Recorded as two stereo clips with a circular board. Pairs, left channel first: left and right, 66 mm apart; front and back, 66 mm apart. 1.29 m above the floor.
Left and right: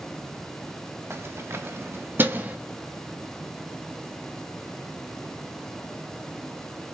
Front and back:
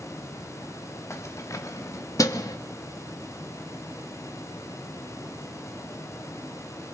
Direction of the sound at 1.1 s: 45° right.